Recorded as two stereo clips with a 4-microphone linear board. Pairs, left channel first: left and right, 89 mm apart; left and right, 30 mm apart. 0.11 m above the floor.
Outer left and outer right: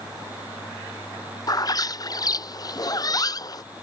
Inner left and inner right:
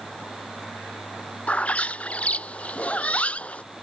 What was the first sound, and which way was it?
A bird, 50° left (ahead or behind).